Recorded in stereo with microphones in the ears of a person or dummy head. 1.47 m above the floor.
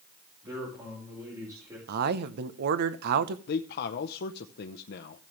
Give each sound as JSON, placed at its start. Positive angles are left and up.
{"t": 0.4, "sound": "a man speaking", "side_deg": -25, "distance_m": 5.5}
{"t": 1.9, "sound": "a man speaking", "side_deg": -65, "distance_m": 0.9}
{"t": 3.5, "sound": "a man speaking", "side_deg": 60, "distance_m": 0.9}